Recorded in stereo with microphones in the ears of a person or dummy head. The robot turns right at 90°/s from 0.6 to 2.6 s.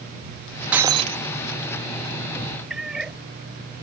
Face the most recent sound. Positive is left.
turn(degrees=0)  # may be behind; listen again after turning